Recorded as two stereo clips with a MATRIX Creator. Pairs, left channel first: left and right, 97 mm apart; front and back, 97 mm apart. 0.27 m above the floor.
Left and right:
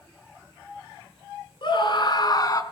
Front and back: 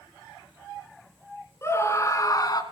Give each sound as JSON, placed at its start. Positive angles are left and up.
{"t": 1.6, "sound": "a scream", "azimuth_deg": 60, "distance_m": 3.5}